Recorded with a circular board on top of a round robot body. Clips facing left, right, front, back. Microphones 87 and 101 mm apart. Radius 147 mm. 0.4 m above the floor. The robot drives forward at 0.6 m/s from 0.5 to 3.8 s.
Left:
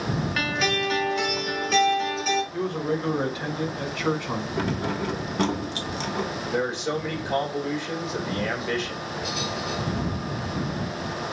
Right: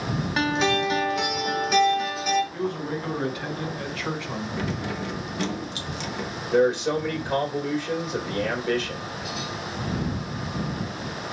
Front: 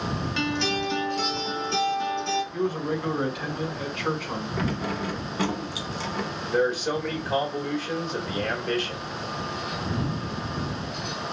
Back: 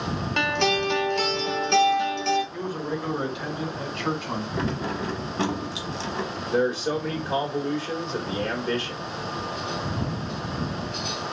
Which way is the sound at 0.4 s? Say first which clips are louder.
Right 6 dB, back 5 dB; 155° right.